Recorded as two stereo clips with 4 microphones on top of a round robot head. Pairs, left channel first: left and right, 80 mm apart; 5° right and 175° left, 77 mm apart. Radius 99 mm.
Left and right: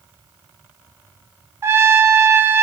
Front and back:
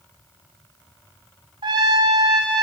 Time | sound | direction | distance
1.6 | a trumpet | 150° right | 1.2 m